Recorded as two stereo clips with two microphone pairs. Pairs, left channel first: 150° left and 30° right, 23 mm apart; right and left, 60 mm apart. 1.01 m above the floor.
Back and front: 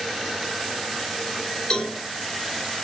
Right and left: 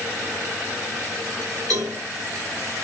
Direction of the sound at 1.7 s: 95° left.